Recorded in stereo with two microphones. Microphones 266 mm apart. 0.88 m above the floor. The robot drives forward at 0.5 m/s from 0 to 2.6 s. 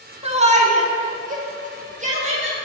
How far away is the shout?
About 1.0 m.